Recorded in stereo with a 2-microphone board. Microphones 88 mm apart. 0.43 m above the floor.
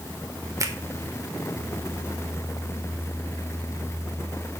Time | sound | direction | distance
0.6 | a finger snap | 40° right (ahead or behind) | 1.1 m